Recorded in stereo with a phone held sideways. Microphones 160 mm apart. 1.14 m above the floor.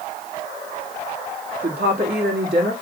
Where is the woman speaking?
80° right, 1.7 m.